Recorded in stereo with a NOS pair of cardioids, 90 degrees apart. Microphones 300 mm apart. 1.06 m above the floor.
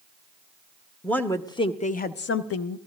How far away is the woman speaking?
About 1.1 m.